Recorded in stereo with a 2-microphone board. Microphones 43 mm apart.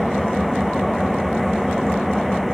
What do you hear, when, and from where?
0.0 s an engine running: centre (ahead or behind)